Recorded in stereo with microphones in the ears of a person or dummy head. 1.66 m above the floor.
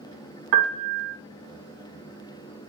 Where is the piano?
60° right (ahead or behind), 0.8 m.